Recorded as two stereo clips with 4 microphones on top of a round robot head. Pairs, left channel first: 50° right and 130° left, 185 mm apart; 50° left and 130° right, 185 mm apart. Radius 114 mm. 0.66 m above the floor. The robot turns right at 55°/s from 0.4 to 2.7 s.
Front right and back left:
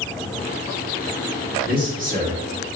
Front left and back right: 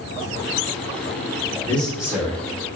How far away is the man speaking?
About 1.9 m.